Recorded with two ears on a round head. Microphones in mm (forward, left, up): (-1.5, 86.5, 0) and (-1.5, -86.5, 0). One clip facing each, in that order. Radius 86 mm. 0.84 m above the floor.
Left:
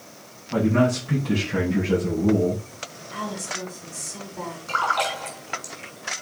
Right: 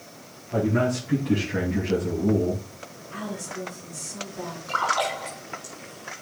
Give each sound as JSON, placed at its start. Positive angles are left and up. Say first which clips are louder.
{"t": 0.5, "sound": "a man speaking", "louder": "left 3 dB", "side_deg": 65, "distance_m": 7.0}
{"t": 3.1, "sound": "a woman speaking", "louder": "left 1 dB", "side_deg": 70, "distance_m": 7.5}
{"t": 4.7, "sound": "a splash", "louder": "even", "side_deg": 35, "distance_m": 7.0}